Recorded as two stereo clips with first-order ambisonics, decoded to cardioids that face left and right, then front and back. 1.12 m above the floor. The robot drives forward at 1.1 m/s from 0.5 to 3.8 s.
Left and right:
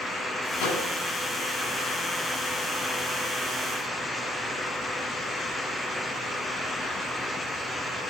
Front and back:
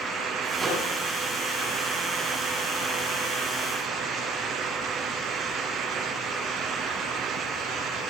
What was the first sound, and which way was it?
A microwave, 100° left.